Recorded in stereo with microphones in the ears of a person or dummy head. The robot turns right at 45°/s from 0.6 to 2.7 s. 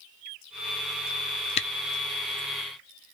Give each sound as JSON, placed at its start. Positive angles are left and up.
{"t": 1.6, "sound": "a camera shutter", "side_deg": 35, "distance_m": 0.5}